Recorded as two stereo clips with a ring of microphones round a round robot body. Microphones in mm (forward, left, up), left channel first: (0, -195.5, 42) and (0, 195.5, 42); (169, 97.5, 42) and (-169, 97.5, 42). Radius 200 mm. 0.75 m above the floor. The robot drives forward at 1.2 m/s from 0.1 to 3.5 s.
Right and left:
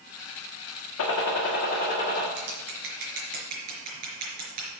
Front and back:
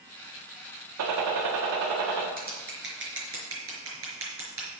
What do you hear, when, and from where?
1.0 s a gunshot: 140° right, 1.6 m; by 2.3 s 160° right, 3 m
2.4 s scissors: 115° left, 3.5 m; by 4.7 s 135° left, 4.5 m